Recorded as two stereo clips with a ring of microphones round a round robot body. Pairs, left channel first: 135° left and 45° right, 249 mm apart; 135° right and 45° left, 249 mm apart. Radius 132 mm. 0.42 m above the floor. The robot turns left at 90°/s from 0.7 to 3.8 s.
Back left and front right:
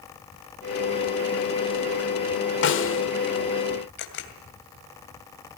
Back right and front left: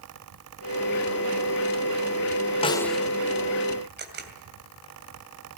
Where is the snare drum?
160° left, 1.7 m; by 3.0 s 125° left, 1.7 m.